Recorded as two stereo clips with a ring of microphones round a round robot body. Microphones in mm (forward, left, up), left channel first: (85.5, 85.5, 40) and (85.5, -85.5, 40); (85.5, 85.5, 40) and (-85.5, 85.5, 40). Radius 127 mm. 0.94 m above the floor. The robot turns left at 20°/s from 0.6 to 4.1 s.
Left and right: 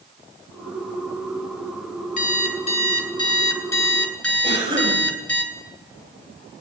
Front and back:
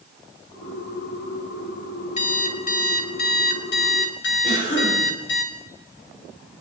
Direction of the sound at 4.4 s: 30° right.